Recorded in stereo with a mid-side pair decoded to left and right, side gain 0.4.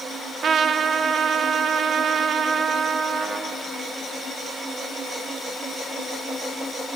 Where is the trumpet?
60° right, 0.9 m.